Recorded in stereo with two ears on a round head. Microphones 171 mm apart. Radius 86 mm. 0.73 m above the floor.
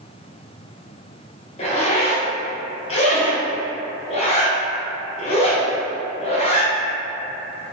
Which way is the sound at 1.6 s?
35° left (ahead or behind).